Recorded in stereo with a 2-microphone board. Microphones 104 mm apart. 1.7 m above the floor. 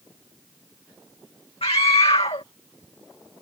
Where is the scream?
75° left (ahead or behind).